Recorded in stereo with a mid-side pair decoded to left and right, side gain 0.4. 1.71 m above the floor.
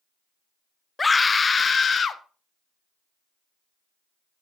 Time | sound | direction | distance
1.0 | a scream | 25° left | 0.8 m